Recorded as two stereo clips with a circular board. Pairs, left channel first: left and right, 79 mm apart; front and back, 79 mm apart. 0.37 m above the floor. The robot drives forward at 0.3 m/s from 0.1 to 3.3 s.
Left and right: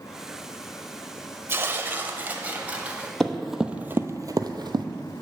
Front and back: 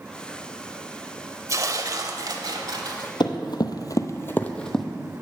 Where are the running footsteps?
10° left, 0.9 m; by 4.8 s 85° right, 0.9 m.